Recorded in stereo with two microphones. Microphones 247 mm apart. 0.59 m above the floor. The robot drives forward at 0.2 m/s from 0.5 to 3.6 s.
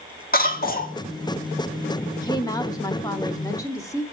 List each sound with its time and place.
0.3 s a cough: 35° left (ahead or behind), 1.3 m
2.1 s a woman speaking: 15° left (ahead or behind), 0.8 m; by 4.0 s 10° left (ahead or behind), 1.0 m